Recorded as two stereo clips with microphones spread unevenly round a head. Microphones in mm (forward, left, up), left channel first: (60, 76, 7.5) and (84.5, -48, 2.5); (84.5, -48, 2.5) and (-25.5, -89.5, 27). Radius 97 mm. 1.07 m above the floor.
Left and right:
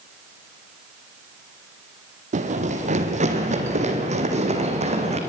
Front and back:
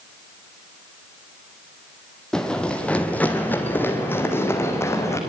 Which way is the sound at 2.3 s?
70° right.